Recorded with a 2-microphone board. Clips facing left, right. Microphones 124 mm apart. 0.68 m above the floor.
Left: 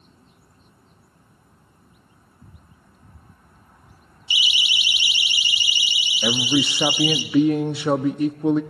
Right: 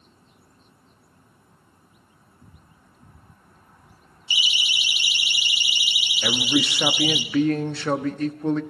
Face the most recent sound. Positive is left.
turn(degrees=15)  # may be behind; listen again after turning